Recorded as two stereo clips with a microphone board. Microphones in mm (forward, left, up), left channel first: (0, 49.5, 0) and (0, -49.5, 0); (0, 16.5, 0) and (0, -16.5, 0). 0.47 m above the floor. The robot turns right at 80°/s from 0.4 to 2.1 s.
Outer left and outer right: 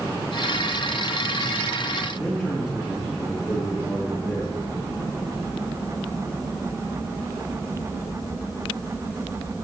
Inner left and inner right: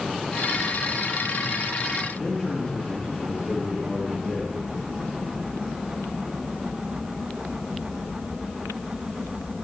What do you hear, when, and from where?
2.1 s a man speaking: 5° left (ahead or behind), 5.5 m